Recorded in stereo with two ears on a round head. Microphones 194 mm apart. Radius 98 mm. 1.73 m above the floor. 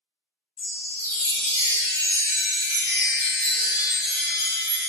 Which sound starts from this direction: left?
A chime, at 0.6 s.